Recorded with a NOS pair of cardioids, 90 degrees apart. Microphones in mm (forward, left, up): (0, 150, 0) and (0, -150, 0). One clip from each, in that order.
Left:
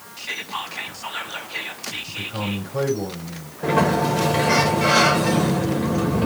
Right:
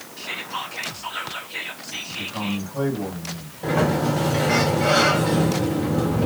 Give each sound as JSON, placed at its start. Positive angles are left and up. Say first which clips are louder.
{"t": 0.2, "sound": "whispering", "louder": "left 1 dB", "azimuth_deg": 20, "distance_m": 2.5}
{"t": 2.1, "sound": "a man speaking", "louder": "right 2 dB", "azimuth_deg": 55, "distance_m": 5.5}
{"t": 3.6, "sound": "a sliding door", "louder": "left 3 dB", "azimuth_deg": 40, "distance_m": 4.0}